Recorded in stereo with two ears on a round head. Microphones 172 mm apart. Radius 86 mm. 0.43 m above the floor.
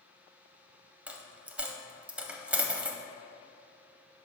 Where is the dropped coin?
5° right (ahead or behind), 0.5 m.